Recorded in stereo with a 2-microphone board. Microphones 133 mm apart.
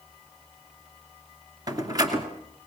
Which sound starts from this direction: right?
A door slam, at 1.7 s.